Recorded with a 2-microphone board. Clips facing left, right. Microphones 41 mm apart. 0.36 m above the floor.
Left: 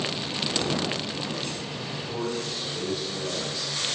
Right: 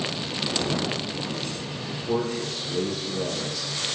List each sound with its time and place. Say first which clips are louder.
1.9 s a man speaking: right 5 dB; 80° right, 9.5 m